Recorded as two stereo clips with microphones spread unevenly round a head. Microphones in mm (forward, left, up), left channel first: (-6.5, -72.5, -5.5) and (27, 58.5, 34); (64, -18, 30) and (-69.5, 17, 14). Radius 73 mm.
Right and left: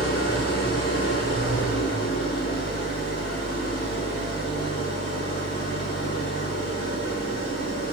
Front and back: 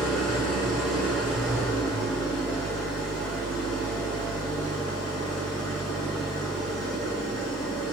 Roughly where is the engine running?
Right.